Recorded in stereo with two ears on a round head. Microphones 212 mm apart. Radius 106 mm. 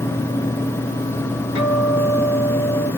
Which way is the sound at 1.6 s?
65° left (ahead or behind).